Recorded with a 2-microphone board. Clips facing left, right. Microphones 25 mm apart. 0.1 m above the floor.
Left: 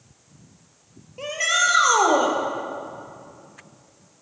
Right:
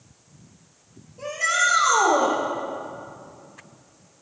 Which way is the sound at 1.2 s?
55° left (ahead or behind).